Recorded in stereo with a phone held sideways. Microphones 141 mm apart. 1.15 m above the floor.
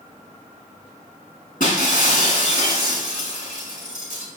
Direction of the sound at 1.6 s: 80° left.